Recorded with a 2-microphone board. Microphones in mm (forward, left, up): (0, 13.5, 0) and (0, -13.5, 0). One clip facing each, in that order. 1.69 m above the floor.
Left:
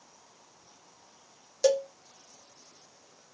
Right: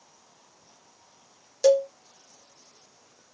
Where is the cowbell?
5° right (ahead or behind), 0.7 m.